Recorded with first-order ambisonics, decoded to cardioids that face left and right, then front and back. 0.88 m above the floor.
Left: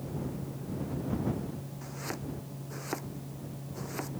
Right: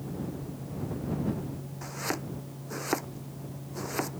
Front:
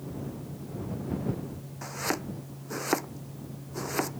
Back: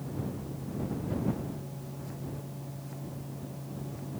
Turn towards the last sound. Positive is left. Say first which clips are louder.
# right 6 dB, front 11 dB
turn(degrees=-20)